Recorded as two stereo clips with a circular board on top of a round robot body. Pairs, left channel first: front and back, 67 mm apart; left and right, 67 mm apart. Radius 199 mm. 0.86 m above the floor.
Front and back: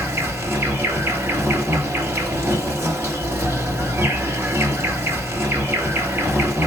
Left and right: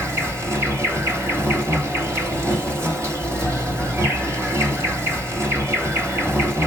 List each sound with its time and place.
0.0 s an insect: 135° right, 3 m